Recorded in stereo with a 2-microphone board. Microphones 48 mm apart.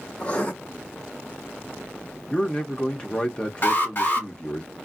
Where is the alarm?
50° left (ahead or behind), 2.0 m.